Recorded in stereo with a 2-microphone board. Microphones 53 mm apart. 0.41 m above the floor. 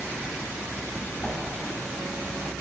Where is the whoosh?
5° right (ahead or behind), 2.5 m.